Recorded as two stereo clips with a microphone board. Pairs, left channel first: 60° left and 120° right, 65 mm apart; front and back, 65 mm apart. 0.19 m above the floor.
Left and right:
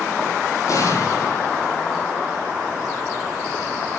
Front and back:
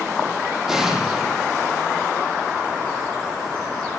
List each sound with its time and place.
0.7 s an explosion: 95° left, 7.5 m